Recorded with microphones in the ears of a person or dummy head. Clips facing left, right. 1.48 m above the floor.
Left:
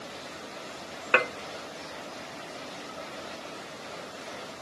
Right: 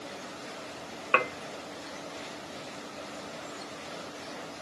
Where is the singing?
I don't hear singing.